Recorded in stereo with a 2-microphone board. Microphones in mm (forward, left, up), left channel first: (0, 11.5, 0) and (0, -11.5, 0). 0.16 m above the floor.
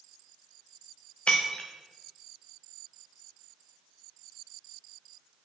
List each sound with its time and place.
1.3 s breaking glass: 50° left (ahead or behind), 1.6 m